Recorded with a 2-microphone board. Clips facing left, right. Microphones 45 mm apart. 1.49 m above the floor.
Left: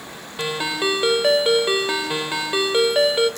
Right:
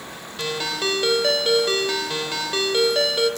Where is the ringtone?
15° left (ahead or behind), 2.5 m.